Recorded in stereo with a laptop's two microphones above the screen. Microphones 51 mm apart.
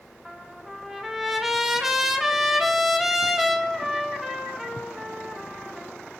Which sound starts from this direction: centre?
A trumpet, at 0.2 s.